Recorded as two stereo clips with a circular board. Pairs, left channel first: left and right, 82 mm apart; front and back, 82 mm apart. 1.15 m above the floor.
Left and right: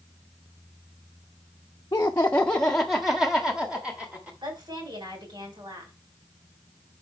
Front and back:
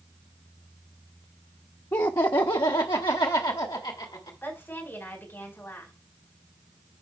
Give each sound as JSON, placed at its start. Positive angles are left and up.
{"t": 1.9, "sound": "laughter", "azimuth_deg": 50, "distance_m": 0.7}
{"t": 4.4, "sound": "a woman speaking", "azimuth_deg": -65, "distance_m": 4.5}